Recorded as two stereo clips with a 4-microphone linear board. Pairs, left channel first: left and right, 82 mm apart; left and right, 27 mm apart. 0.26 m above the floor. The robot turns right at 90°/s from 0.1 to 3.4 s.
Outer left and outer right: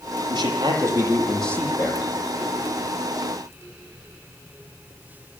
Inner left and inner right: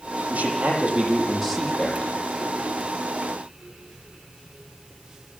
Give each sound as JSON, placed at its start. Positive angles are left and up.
{"t": 0.3, "sound": "a man speaking", "azimuth_deg": -95, "distance_m": 9.5}